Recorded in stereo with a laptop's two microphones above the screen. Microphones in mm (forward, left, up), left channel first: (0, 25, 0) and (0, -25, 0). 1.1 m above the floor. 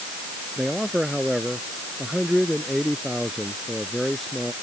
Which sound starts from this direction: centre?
A man speaking, at 0.6 s.